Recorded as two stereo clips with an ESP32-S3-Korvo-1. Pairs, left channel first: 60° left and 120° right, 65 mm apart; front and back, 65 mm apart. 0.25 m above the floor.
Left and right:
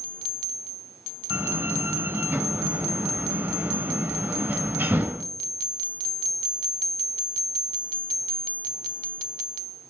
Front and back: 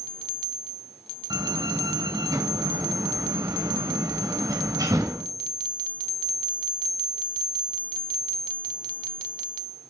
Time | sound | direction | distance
1.3 | a door slam | 175° right | 1.9 m